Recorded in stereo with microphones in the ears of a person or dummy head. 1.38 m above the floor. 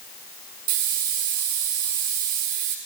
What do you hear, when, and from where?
0.7 s a hiss: 50° right (ahead or behind), 1.4 m